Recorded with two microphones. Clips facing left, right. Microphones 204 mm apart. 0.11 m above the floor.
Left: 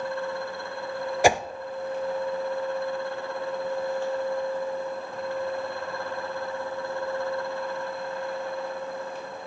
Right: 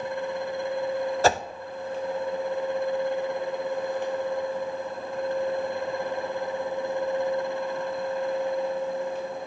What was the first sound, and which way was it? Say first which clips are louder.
A whoosh: left 3 dB; 15° left (ahead or behind).